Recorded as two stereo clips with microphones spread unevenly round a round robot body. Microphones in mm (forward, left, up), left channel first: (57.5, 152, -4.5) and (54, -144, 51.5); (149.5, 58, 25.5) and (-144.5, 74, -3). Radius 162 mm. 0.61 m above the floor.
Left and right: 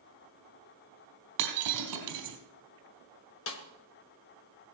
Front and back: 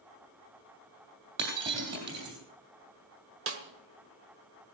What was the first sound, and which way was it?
Breaking glass, 125° right.